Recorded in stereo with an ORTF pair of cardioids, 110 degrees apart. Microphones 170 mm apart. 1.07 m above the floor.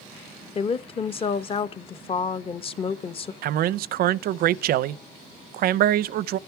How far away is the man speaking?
About 0.5 m.